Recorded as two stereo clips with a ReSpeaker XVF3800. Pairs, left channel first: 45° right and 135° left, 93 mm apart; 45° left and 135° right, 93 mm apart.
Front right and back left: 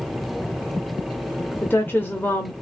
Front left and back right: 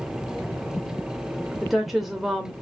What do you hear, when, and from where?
1.6 s a woman speaking: 50° right, 0.8 m